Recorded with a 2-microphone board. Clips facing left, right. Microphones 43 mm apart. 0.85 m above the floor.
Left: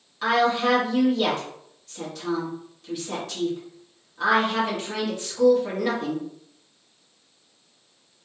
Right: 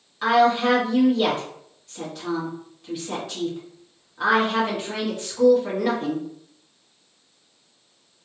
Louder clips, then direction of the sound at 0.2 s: Right 3 dB; 10° right (ahead or behind).